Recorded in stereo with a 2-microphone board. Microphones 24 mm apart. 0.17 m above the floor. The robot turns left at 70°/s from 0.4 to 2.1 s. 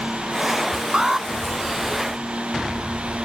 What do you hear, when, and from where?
0.9 s an alarm: 35° right (ahead or behind); by 1.3 s 20° right (ahead or behind)